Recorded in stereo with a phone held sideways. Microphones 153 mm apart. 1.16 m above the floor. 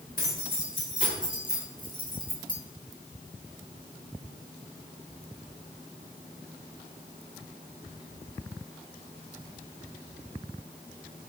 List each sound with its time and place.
0.2 s keys jangling: 50° left (ahead or behind), 3 m; by 2.6 s 60° left (ahead or behind), 1.3 m